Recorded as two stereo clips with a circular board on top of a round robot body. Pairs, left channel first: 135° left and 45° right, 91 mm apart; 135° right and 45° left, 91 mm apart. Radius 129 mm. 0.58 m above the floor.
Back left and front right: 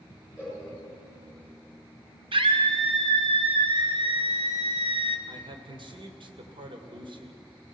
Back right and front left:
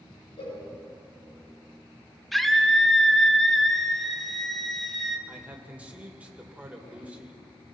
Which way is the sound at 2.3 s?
45° right.